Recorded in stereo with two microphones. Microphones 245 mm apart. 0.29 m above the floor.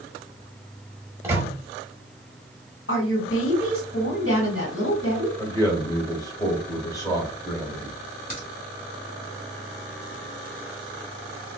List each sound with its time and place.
1.2 s a microwave: 10° right (ahead or behind), 0.8 m
2.9 s a woman speaking: 55° left (ahead or behind), 2.5 m
5.4 s a man speaking: 15° left (ahead or behind), 1.0 m
8.3 s a crack: 35° left (ahead or behind), 1.6 m